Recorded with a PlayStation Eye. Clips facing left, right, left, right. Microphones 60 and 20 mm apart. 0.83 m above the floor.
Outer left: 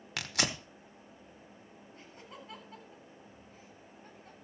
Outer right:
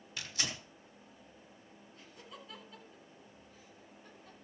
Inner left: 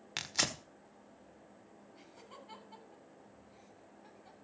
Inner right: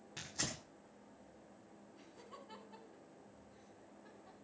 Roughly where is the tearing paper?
Left.